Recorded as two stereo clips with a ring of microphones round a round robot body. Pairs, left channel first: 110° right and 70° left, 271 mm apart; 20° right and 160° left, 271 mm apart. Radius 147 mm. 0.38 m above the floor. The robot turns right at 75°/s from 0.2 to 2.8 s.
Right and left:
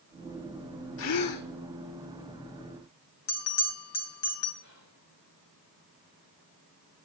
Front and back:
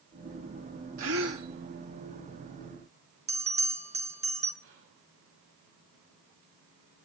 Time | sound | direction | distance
1.0 | a gasp | 160° right | 4 m
3.3 | a bell | 135° right | 4 m
4.6 | whispering | 160° right | 5.5 m